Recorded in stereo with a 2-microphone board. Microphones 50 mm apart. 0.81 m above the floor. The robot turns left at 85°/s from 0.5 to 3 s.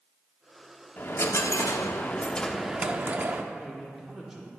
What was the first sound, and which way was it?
A dropped coin, 140° left.